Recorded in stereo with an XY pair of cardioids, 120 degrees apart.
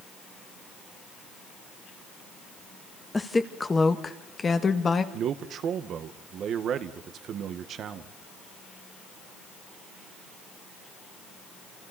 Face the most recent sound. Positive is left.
turn(degrees=-55)